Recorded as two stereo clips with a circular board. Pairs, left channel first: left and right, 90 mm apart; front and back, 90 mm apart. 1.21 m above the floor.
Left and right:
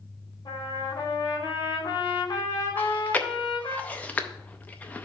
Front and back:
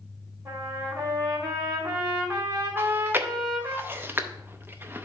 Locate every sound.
0.5 s a trumpet: 130° left, 2.5 m
2.8 s chewing: 145° left, 0.5 m